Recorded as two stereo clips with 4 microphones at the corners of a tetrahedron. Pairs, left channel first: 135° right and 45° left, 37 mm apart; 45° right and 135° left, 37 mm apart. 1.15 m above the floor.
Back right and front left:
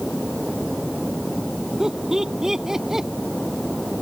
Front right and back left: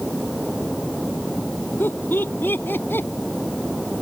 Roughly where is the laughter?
Ahead right.